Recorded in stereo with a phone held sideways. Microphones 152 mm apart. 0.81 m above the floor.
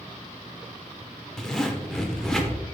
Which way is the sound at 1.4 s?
5° left (ahead or behind).